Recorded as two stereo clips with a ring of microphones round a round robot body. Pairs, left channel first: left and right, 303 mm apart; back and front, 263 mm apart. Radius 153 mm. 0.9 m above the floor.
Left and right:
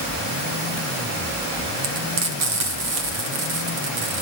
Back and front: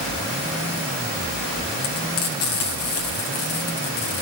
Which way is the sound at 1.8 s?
130° right.